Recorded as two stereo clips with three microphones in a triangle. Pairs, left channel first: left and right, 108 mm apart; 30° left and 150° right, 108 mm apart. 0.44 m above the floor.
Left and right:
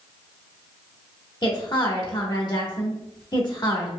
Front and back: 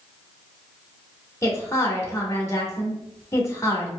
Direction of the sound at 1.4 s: 75° left.